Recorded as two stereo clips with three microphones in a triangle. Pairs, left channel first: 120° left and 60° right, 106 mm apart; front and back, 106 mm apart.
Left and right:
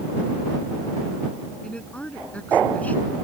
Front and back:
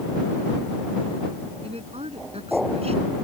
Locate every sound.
1.6 s a woman speaking: 160° right; by 3.1 s 165° right